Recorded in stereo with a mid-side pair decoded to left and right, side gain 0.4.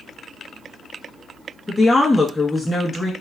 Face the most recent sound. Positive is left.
turn(degrees=25)